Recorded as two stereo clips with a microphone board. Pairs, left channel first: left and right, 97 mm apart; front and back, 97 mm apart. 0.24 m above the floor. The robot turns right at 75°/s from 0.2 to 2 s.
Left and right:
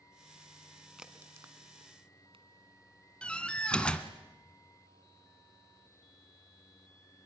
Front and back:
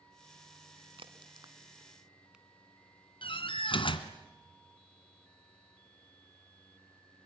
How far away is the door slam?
About 1.7 m.